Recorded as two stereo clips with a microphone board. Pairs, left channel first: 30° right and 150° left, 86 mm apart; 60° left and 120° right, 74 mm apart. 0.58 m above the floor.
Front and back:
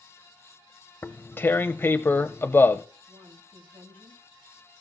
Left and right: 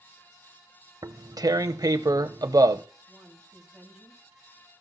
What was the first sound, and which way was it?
Tearing paper, 95° right.